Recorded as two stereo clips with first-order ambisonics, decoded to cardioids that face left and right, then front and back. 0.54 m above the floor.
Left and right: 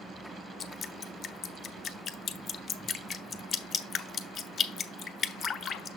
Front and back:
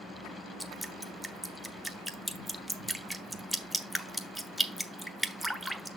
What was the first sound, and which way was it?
Dripping, 90° left.